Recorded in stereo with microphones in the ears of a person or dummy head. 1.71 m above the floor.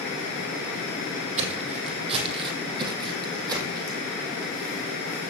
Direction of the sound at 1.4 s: 30° right (ahead or behind).